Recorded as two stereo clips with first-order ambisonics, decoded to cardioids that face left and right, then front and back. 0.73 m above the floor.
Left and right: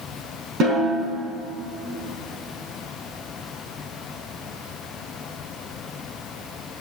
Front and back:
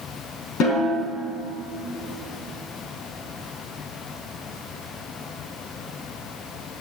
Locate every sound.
0.6 s a snare drum: 40° right, 4.5 m